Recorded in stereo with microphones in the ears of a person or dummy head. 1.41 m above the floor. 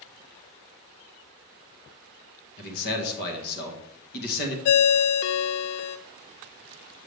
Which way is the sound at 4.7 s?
60° left (ahead or behind).